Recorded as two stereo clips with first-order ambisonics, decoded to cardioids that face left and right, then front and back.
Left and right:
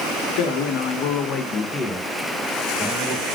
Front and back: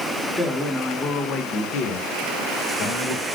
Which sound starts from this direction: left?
A man speaking, at 0.4 s.